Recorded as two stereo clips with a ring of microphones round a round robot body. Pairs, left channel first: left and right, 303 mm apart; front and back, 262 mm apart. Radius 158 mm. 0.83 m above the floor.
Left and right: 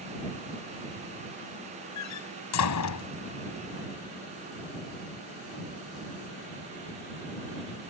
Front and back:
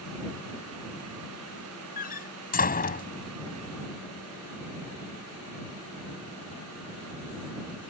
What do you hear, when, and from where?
2.0 s a door slam: 55° left